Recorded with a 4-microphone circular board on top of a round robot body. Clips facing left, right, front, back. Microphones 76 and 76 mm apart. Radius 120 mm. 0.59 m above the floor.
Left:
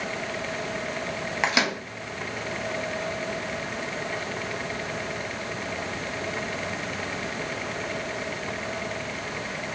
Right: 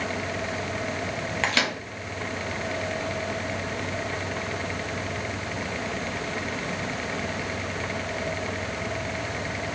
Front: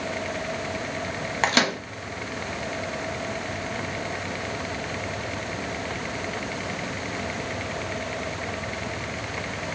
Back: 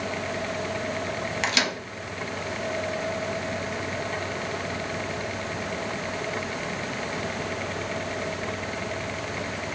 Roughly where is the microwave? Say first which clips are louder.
Left 2 dB, front 6 dB; ahead left.